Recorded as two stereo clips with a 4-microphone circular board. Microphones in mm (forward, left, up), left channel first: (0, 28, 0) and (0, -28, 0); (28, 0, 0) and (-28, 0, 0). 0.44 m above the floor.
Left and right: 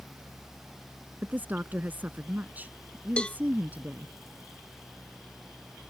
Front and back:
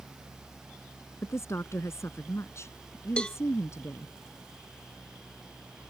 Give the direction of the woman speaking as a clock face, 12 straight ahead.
1 o'clock.